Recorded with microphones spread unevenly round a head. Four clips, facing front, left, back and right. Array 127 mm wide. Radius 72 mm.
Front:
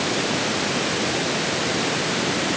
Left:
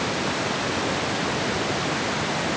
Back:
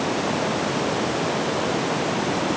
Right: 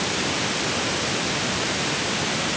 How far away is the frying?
No frying in this recording.